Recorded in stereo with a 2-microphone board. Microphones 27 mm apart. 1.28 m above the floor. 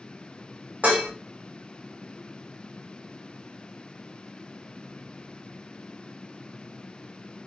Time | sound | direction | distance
0.8 | dishes clattering | 70° right (ahead or behind) | 1.5 m